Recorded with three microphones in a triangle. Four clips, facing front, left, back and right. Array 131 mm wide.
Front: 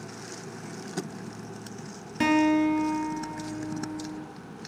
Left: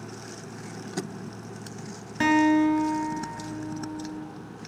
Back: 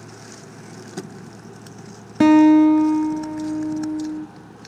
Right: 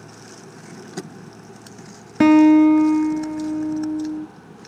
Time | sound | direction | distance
2.2 | a guitar | 130° right | 0.5 m